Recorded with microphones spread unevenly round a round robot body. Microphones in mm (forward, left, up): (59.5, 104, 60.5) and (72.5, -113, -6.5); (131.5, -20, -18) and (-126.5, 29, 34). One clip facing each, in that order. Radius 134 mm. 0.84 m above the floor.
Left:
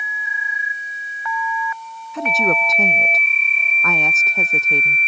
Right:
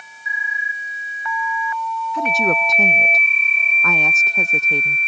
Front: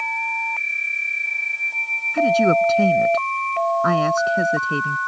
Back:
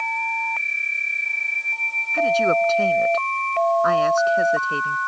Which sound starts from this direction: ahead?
A woman speaking, at 2.1 s.